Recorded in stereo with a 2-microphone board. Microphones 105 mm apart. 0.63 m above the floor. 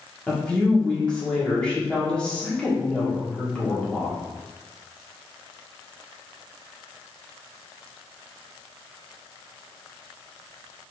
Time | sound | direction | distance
0.3 | a woman speaking | 10° left (ahead or behind) | 1.0 m